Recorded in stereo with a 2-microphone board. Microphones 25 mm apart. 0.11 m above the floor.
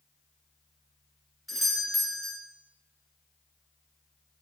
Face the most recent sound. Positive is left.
turn(degrees=-5)  # may be behind; listen again after turning